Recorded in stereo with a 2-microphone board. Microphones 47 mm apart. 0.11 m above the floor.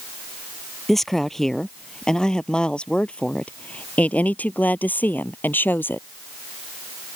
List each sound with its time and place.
0.9 s a woman speaking: 5° left (ahead or behind); by 6.1 s 50° left (ahead or behind)